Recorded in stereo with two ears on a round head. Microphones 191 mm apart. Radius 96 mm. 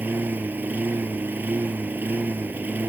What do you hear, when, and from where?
0.0 s a lawn mower: 10° right (ahead or behind)